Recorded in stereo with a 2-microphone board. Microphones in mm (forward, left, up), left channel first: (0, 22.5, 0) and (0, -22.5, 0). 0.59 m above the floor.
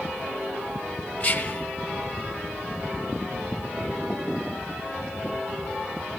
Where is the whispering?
20° left (ahead or behind), 1.0 m.